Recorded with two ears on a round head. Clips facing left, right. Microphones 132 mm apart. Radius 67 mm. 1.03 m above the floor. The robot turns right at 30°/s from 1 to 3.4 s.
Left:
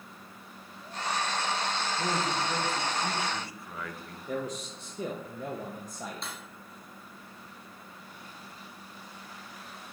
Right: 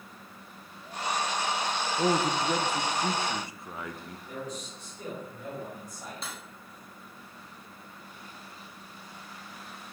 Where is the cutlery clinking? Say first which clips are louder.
Even; centre (ahead or behind), 0.9 m.